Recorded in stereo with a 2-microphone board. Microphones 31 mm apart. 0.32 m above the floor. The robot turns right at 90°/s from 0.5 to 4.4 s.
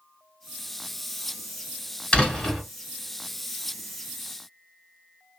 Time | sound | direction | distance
2.1 | a door slam | 145° left | 1.6 m